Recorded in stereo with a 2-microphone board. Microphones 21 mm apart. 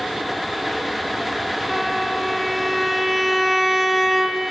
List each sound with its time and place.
1.7 s a violin: centre (ahead or behind), 1.1 m